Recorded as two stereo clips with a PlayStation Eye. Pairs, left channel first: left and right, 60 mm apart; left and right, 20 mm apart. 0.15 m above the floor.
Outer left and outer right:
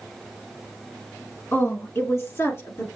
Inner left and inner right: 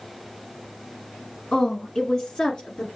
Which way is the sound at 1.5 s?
40° left (ahead or behind).